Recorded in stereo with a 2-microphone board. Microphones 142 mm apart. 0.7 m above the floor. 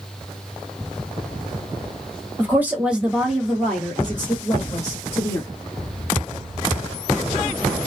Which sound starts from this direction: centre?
A woman speaking, at 2.4 s.